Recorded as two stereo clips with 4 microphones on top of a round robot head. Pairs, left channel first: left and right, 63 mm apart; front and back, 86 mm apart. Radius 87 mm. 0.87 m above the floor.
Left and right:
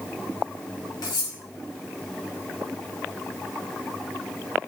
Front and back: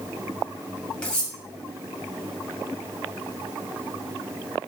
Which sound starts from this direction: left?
Cutlery clinking, at 1.0 s.